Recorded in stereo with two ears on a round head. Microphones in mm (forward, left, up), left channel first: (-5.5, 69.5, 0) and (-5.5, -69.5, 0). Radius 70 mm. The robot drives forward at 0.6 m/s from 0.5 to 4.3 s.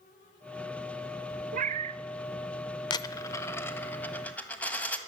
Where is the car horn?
I don't hear a car horn.